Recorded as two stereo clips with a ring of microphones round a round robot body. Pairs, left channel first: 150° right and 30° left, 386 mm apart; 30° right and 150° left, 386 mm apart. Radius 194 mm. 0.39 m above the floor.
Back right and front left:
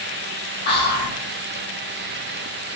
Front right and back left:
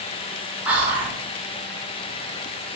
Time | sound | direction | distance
0.7 | whispering | 130° right | 0.8 m